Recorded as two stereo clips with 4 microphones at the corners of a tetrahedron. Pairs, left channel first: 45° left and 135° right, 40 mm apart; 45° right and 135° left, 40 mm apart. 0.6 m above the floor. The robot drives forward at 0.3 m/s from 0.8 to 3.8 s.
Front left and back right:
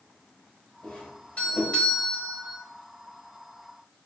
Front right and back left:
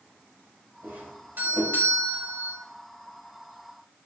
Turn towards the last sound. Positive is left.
turn(degrees=110)